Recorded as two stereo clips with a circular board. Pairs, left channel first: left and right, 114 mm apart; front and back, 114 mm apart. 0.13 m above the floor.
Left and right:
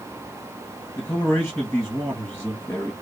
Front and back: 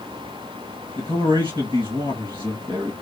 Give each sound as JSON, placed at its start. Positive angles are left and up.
{"t": 1.0, "sound": "a man speaking", "azimuth_deg": 150, "distance_m": 2.0}